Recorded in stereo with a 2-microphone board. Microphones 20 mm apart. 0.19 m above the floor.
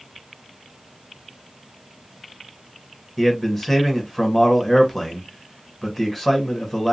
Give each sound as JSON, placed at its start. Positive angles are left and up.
{"t": 3.2, "sound": "a man speaking", "side_deg": 15, "distance_m": 1.2}